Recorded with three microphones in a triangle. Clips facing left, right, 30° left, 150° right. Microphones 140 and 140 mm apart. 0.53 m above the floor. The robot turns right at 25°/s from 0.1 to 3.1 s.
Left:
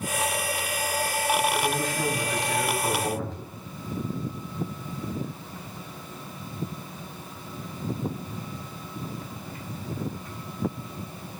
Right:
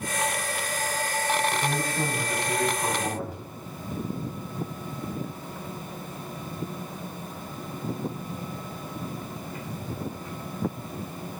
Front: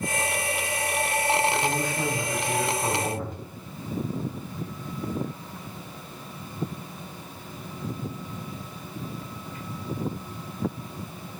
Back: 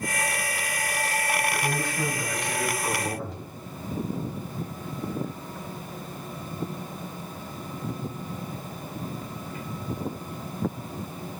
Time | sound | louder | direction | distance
1.5 | a man speaking | left 1 dB, front 2 dB | 50° right | 3 m